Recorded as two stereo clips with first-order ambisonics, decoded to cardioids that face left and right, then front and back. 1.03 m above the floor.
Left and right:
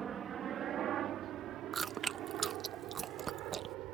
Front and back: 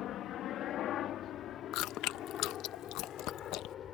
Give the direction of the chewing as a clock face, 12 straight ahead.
1 o'clock.